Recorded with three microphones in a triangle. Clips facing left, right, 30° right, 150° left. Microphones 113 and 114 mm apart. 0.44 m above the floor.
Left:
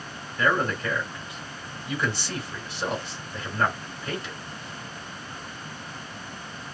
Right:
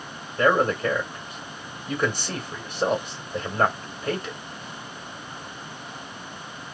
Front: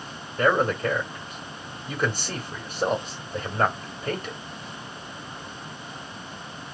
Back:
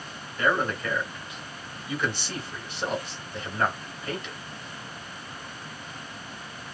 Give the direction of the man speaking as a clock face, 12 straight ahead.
2 o'clock.